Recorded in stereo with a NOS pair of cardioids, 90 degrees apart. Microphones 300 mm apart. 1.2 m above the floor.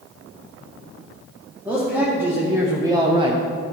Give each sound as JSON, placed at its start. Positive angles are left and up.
{"t": 1.6, "sound": "a man speaking", "azimuth_deg": -5, "distance_m": 2.5}